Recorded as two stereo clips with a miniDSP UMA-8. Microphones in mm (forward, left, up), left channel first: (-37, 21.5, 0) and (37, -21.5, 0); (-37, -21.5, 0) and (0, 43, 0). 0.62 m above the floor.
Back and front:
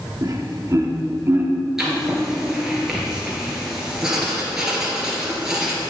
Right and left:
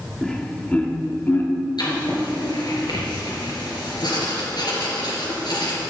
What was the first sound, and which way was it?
Laughter, 40° right.